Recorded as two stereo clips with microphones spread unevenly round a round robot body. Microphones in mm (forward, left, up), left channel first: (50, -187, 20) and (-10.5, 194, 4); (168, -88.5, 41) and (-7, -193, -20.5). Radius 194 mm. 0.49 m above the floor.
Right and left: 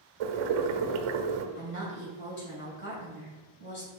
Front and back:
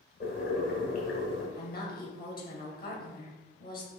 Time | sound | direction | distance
0.2 | boiling | 105° left | 1.0 m
1.6 | a woman speaking | 20° right | 3 m